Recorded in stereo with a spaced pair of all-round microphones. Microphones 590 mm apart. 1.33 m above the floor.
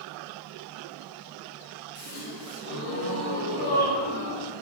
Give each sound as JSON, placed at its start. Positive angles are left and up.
{"t": 1.9, "sound": "a gasp", "side_deg": 35, "distance_m": 1.4}